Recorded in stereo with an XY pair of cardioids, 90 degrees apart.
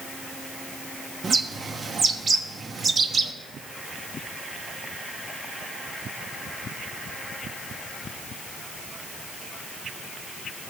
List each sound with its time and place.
1.2 s a bird: 45° right, 1.2 m